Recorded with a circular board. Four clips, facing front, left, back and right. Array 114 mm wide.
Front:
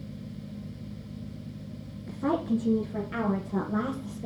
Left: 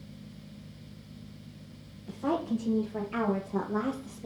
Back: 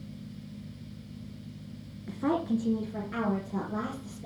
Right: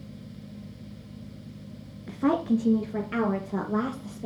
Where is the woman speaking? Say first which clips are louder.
Right 6 dB, front 1 dB; 100° right, 1.8 m; by 4.3 s 65° right, 3 m.